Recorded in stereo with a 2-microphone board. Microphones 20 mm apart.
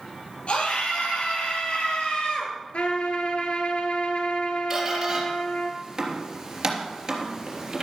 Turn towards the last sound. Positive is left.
turn(degrees=-20)  # may be behind; listen again after turning